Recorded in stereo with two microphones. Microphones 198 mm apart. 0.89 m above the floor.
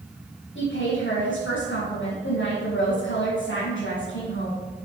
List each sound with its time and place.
0.6 s a woman speaking: 85° left, 5.5 m